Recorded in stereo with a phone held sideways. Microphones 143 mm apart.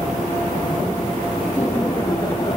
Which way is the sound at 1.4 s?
10° left (ahead or behind).